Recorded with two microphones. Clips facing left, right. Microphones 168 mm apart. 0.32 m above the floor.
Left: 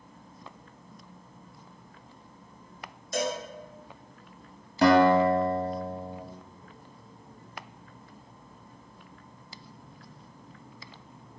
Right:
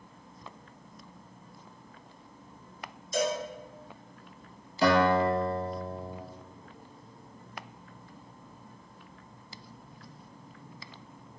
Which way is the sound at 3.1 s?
75° left (ahead or behind).